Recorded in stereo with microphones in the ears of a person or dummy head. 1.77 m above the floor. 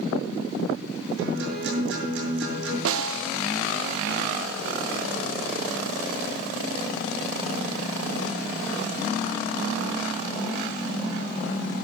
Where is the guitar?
70° right (ahead or behind), 6 m.